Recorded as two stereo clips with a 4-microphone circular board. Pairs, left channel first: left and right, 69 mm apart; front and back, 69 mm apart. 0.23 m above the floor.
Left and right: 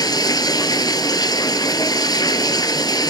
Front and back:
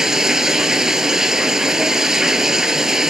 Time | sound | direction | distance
0.0 | running water | 100° left | 1.2 m